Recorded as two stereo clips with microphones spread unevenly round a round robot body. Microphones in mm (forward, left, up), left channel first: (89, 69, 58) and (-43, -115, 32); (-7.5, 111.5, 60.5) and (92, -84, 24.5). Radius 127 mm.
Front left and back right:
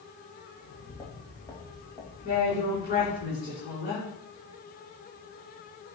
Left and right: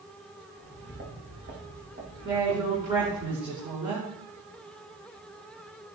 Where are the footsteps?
15° right, 5.5 m; by 3.2 s 25° right, 7 m.